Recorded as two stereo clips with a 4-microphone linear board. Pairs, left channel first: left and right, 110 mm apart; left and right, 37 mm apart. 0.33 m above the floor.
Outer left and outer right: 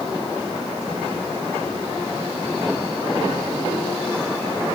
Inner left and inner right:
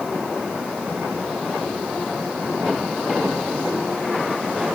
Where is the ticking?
No ticking in this recording.